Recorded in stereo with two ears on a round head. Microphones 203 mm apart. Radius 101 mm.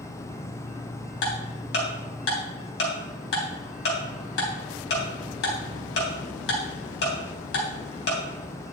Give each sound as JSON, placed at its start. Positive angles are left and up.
{"t": 0.0, "sound": "an insect", "side_deg": 40, "distance_m": 4.5}
{"t": 1.2, "sound": "ticking", "side_deg": 60, "distance_m": 3.0}